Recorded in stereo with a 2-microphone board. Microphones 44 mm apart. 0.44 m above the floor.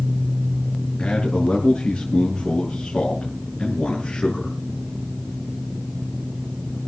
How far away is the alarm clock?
I don't hear an alarm clock.